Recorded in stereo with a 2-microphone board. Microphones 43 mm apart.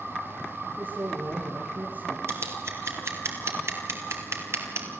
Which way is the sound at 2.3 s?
70° right (ahead or behind).